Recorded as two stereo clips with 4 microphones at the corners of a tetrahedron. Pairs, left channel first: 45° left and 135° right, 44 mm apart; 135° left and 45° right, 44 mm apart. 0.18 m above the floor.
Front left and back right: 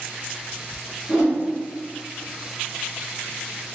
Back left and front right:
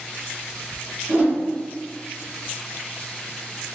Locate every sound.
1.1 s a whoosh: 80° right, 1.8 m